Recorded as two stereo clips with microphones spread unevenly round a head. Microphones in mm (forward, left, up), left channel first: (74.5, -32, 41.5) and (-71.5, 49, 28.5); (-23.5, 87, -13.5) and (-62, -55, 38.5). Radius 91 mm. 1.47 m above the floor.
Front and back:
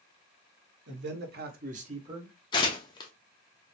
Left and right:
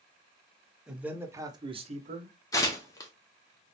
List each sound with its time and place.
0.9 s a man speaking: 165° left, 1.2 m; by 2.3 s 140° right, 0.9 m
2.5 s tearing paper: 15° right, 0.6 m